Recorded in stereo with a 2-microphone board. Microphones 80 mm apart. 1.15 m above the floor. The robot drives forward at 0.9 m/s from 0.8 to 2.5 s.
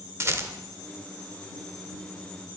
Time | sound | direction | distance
0.2 | a rattle | 35° right (ahead or behind) | 1.0 m